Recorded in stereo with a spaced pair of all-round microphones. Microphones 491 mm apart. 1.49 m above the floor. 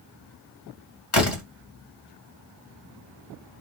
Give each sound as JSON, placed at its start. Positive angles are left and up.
{"t": 1.1, "sound": "a door slam", "side_deg": 70, "distance_m": 2.0}